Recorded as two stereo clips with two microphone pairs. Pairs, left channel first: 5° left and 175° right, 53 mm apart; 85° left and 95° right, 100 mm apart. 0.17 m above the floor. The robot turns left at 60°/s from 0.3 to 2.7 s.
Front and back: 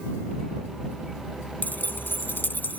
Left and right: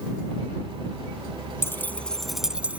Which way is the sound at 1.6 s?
35° left.